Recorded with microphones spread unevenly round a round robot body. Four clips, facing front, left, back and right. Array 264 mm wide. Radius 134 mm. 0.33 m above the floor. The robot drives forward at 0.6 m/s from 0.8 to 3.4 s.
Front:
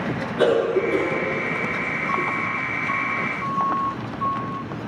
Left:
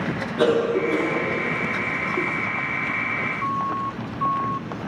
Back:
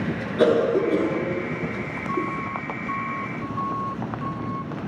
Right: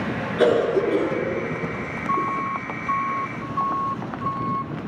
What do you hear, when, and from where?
0.4 s a cough: 155° left, 2.5 m; by 2.4 s 160° left, 3.5 m